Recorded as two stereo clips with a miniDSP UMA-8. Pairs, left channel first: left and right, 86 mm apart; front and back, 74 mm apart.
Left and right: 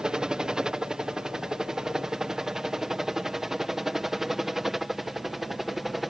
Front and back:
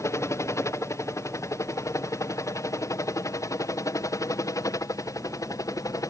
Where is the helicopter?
10° right; by 6.1 s straight ahead.